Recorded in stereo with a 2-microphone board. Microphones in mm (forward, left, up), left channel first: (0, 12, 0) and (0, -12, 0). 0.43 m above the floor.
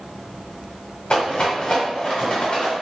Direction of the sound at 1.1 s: 45° left (ahead or behind).